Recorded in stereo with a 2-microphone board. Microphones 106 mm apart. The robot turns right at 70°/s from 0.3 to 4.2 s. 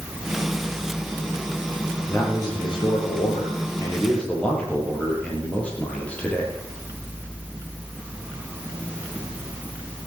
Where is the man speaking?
20° left, 4.5 m; by 6.5 s 170° left, 4.5 m.